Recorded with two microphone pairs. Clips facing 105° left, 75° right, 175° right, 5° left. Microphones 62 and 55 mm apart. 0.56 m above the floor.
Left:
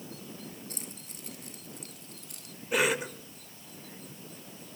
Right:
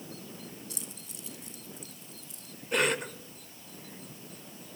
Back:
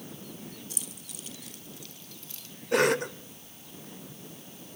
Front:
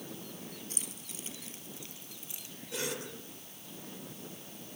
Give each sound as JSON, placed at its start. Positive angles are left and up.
{"t": 0.7, "sound": "keys jangling", "azimuth_deg": 60, "distance_m": 4.0}
{"t": 2.7, "sound": "a cough", "azimuth_deg": -170, "distance_m": 1.8}